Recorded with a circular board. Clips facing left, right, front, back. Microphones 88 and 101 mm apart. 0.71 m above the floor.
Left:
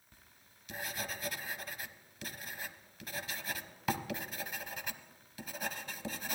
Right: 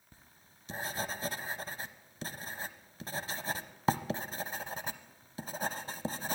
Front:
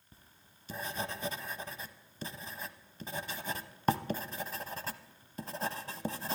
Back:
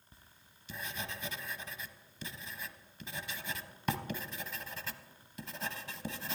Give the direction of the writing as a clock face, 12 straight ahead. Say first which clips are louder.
Right 3 dB, front 2 dB; 1 o'clock.